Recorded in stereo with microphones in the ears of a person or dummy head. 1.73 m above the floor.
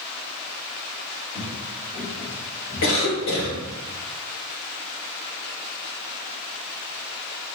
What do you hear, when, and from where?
1.3 s footsteps: centre (ahead or behind), 1.7 m; by 3.8 s 40° left (ahead or behind), 2 m
2.8 s a cough: 85° left, 1.6 m